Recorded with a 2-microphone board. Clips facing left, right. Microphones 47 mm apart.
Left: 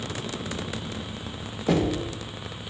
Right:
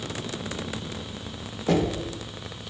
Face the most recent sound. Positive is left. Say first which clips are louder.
# even
turn(degrees=5)  # may be behind; listen again after turning